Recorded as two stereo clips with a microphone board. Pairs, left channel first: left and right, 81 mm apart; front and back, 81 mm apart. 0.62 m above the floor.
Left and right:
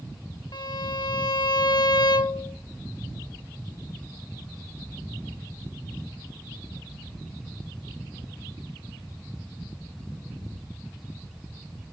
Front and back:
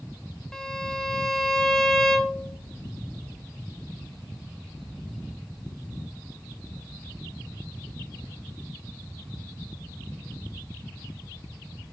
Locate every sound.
0.5 s a violin: 85° left, 1.0 m